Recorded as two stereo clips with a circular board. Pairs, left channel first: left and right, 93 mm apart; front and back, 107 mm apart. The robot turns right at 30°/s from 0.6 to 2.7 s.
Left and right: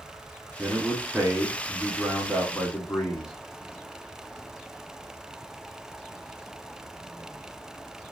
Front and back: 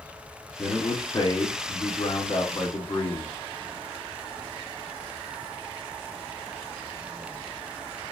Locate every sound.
0.6 s a man speaking: 20° right, 1.3 m; by 3.4 s 40° left, 1.3 m